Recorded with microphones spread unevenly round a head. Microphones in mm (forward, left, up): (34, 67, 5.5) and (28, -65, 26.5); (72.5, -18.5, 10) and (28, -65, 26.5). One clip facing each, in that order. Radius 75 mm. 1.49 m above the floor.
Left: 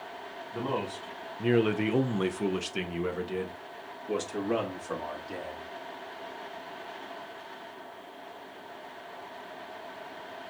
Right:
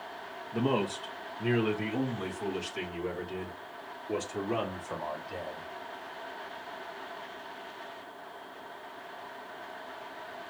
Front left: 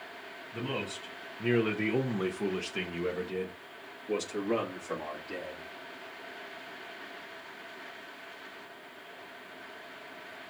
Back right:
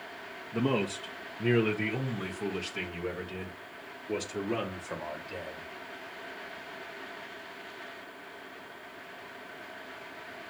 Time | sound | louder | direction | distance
0.5 | a man speaking | right 4 dB, back right 7 dB | 155° right | 0.7 m